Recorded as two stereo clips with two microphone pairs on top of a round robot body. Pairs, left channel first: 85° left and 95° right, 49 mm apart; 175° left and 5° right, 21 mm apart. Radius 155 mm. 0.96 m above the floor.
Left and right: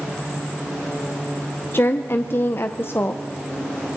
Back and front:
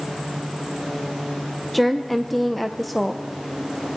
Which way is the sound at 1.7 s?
90° left.